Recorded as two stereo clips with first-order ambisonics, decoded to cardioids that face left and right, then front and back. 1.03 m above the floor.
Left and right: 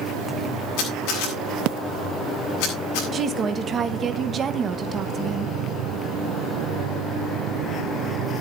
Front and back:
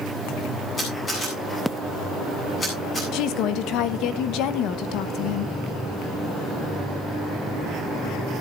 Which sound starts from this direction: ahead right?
A woman speaking, at 3.1 s.